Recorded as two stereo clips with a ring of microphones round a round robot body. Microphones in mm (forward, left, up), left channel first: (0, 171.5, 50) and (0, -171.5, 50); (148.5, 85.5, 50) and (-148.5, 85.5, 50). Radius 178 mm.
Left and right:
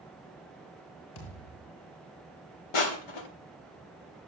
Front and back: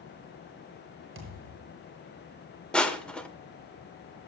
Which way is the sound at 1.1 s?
130° left.